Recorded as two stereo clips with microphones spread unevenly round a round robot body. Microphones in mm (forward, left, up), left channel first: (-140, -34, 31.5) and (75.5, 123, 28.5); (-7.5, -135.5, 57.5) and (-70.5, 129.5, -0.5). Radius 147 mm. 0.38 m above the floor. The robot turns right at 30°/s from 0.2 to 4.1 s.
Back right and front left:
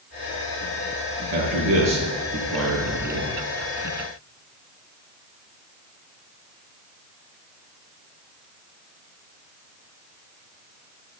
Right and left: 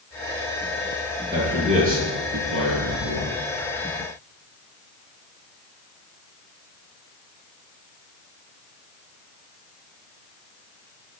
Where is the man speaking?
25° left, 6 m; by 3.3 s 85° left, 6 m.